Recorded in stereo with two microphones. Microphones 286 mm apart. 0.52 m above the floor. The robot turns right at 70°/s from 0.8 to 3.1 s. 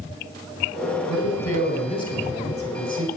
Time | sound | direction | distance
1.1 | a man speaking | 100° left | 3.5 m